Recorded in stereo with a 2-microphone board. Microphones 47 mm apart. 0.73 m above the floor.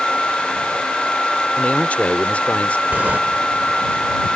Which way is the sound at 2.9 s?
40° right (ahead or behind).